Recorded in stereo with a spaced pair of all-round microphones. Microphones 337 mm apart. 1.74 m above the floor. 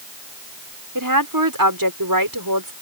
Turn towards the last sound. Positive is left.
turn(degrees=-90)